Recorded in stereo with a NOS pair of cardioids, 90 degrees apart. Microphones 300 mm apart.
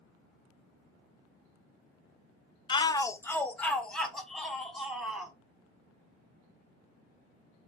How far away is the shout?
About 0.5 m.